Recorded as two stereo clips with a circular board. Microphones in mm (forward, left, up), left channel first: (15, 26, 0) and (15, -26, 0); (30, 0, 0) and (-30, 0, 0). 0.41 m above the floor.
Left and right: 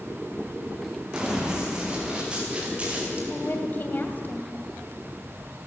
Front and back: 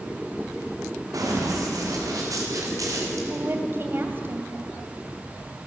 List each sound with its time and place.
1.1 s running footsteps: 165° right, 6.5 m; by 3.2 s 155° right, 5.5 m
3.3 s a woman speaking: 135° left, 2.5 m